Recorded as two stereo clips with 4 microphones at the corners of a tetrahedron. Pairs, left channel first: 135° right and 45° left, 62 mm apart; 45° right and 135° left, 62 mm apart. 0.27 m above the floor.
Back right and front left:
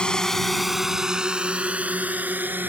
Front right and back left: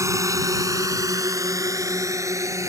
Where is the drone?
150° left; by 2.7 s 100° left.